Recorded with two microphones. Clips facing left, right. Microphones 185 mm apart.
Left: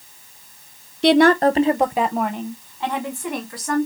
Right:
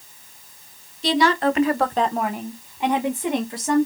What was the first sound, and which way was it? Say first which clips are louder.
A woman speaking: left 6 dB; 65° left (ahead or behind).